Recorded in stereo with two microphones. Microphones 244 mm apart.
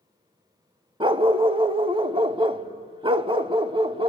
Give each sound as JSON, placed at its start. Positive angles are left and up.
{"t": 1.0, "sound": "a dog barking", "side_deg": -20, "distance_m": 0.5}